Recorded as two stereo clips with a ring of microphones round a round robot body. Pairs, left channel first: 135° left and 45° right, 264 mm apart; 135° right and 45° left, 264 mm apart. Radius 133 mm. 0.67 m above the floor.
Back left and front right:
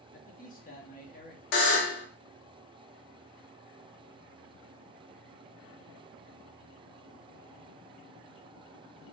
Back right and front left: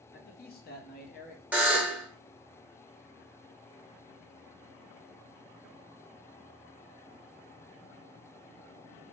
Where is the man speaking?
175° right, 0.7 m.